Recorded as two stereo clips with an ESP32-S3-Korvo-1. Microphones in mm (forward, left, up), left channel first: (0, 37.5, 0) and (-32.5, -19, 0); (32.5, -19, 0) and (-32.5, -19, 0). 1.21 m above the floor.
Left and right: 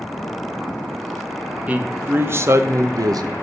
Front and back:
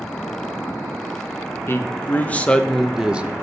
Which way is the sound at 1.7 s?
55° right.